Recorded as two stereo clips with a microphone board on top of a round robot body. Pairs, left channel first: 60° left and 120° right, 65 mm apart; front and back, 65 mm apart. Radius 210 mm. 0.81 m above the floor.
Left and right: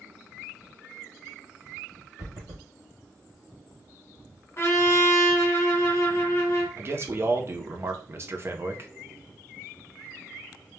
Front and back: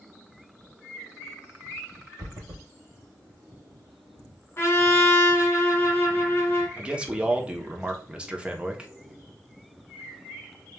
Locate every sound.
2.2 s running footsteps: 160° right, 1.1 m
4.6 s a trumpet: 35° left, 1.3 m
6.8 s a man speaking: 115° right, 0.8 m